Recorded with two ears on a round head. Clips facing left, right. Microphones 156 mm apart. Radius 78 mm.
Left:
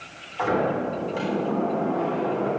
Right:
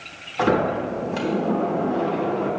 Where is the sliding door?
70° right (ahead or behind), 3 m.